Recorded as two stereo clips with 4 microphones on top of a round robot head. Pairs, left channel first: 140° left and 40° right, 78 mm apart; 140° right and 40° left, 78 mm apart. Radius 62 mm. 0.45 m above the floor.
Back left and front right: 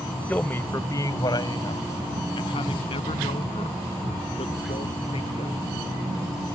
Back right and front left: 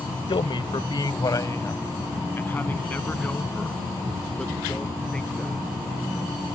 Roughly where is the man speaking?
Behind right.